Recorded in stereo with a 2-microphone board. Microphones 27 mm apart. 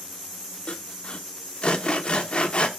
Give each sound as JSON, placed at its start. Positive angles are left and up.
{"t": 0.7, "sound": "sawing", "side_deg": 45, "distance_m": 0.7}